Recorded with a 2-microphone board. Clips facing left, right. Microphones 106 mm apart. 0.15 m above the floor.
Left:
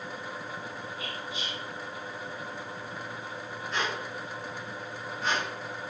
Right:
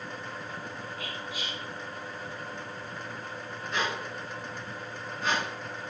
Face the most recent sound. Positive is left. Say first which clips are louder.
# right 1 dB
turn(degrees=0)  # may be behind; listen again after turning